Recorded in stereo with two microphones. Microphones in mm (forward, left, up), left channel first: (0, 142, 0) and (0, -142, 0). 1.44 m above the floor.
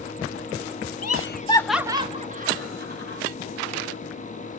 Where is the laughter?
60° left (ahead or behind), 0.7 m; by 3.2 s 35° right (ahead or behind), 2 m.